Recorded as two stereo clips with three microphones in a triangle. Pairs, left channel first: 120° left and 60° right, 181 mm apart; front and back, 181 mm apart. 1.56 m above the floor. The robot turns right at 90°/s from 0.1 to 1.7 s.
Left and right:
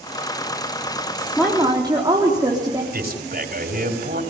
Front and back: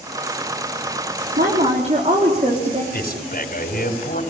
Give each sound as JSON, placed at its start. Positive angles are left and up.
{"t": 1.4, "sound": "a woman speaking", "azimuth_deg": -155, "distance_m": 3.5}
{"t": 2.9, "sound": "a man speaking", "azimuth_deg": -30, "distance_m": 4.5}